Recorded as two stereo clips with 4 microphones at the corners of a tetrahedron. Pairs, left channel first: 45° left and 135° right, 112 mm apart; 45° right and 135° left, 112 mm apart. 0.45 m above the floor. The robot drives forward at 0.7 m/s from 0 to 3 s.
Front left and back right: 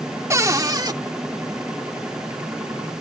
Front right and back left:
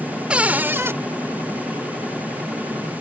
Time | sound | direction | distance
0.3 | a cupboard door | 160° right | ?